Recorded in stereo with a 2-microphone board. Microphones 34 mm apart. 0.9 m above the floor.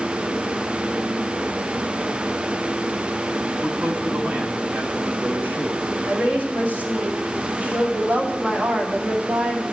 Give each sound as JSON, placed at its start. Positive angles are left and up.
{"t": 3.6, "sound": "a man speaking", "side_deg": -30, "distance_m": 1.8}
{"t": 6.1, "sound": "a woman speaking", "side_deg": -45, "distance_m": 2.5}